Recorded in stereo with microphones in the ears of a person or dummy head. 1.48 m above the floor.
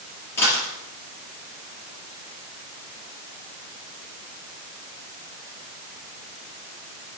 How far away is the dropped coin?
About 4 m.